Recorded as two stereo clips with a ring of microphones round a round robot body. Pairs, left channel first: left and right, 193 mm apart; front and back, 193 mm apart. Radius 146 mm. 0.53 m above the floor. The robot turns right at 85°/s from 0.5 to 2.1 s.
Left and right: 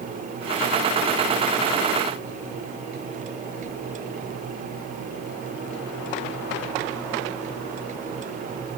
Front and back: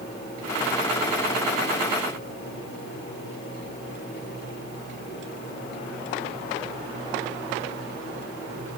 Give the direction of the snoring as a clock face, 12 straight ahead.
I don't hear snoring.